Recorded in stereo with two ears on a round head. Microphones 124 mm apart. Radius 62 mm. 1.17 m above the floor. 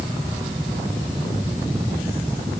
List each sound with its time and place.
Only background noise.